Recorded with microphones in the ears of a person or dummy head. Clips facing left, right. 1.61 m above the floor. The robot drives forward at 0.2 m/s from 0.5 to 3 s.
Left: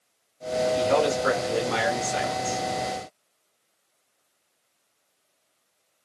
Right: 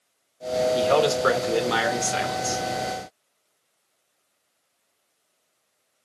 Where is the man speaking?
55° right (ahead or behind), 1.5 m; by 2.6 s 65° right (ahead or behind), 1.3 m.